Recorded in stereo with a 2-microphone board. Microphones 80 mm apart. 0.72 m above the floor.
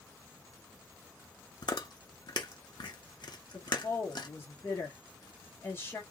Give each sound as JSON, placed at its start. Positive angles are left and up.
{"t": 1.6, "sound": "chewing", "side_deg": 65, "distance_m": 0.7}
{"t": 3.5, "sound": "a woman speaking", "side_deg": 30, "distance_m": 1.2}